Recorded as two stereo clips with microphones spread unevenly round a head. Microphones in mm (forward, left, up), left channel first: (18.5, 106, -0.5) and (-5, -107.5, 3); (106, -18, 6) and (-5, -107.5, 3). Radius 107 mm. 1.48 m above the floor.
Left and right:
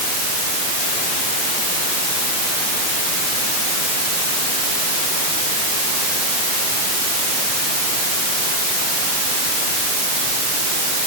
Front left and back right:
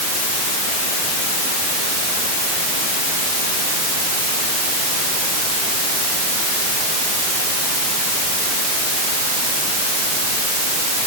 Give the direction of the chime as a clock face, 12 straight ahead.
I don't hear a chime.